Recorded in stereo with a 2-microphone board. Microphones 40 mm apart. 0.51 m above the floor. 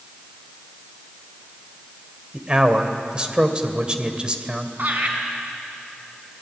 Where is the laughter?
50° right (ahead or behind), 5 m.